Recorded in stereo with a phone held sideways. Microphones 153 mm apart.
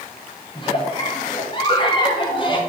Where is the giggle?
35° left (ahead or behind), 1.0 m.